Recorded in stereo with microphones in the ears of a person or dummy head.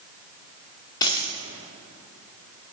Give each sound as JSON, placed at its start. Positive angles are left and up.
{"t": 1.0, "sound": "a dropped coin", "side_deg": 20, "distance_m": 1.2}